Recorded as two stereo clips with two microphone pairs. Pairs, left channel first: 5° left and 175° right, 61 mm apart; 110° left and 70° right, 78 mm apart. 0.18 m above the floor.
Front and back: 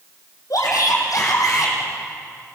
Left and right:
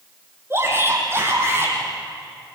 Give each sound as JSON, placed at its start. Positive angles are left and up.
{"t": 0.5, "sound": "a shout", "azimuth_deg": -10, "distance_m": 6.0}